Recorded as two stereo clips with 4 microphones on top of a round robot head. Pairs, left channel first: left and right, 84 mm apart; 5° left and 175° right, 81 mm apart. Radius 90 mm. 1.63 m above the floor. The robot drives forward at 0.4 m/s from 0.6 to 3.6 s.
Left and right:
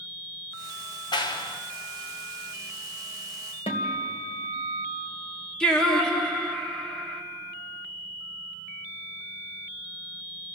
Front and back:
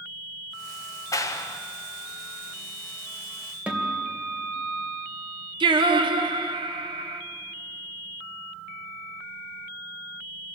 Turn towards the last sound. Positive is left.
turn(degrees=170)